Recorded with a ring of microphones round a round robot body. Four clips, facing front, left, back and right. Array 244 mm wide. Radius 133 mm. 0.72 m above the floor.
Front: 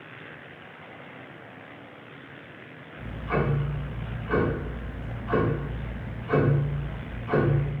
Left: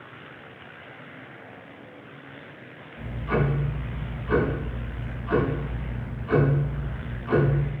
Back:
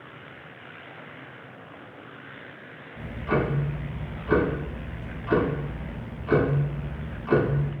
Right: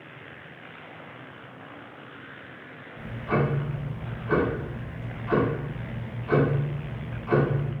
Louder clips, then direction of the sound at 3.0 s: Even, back 2 dB; 175° right.